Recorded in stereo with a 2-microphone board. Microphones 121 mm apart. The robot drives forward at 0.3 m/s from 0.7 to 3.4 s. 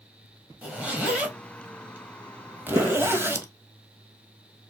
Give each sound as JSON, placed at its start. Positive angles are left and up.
{"t": 0.6, "sound": "a zipper", "side_deg": -10, "distance_m": 1.4}
{"t": 2.8, "sound": "a gunshot", "side_deg": -25, "distance_m": 2.5}